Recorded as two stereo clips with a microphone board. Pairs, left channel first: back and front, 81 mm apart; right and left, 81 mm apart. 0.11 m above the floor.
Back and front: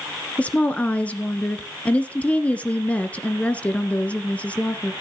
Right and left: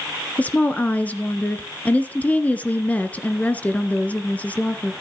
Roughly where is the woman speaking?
Behind right.